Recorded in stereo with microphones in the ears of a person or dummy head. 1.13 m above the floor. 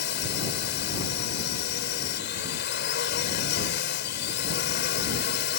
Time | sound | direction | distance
0.0 | a drone | 60° left (ahead or behind) | ?